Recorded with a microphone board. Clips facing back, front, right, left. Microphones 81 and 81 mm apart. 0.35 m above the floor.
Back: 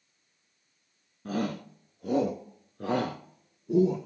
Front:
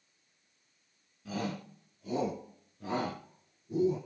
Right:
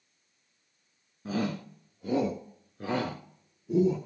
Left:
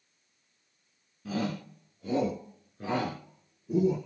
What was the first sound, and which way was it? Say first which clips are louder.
A shout: back 5 dB, right 1 dB; 145° right.